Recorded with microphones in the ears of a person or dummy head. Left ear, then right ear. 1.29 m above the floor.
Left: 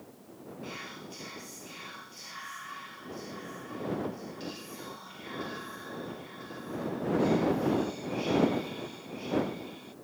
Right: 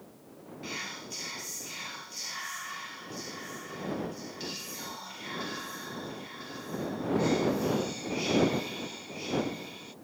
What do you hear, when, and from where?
0.6 s whispering: 20° right (ahead or behind)